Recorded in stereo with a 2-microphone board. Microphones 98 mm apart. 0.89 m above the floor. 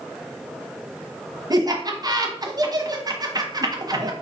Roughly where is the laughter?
Right.